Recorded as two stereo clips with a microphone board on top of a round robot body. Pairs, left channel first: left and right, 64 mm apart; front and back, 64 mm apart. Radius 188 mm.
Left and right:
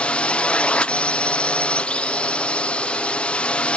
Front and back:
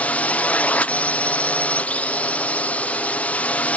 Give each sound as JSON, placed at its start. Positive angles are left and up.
{"t": 0.0, "sound": "a drone", "azimuth_deg": 35}